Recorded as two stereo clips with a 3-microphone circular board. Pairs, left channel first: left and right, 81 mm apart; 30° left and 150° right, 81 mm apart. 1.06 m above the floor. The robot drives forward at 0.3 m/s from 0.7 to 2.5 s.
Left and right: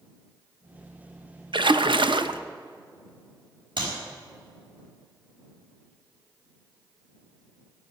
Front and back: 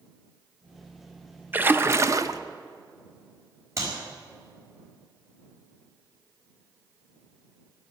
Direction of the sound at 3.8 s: 100° right.